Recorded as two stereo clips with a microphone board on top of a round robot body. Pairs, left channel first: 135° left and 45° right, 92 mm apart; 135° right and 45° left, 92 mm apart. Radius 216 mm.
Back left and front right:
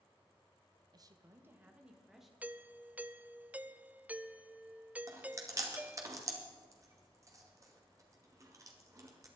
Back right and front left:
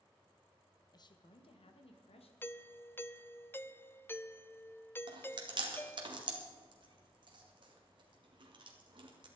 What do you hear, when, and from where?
0.9 s a woman speaking: 90° right, 1.4 m; by 2.3 s 135° right, 2.5 m
2.4 s a doorbell: 100° right, 0.9 m
5.1 s chewing: 10° left, 2.5 m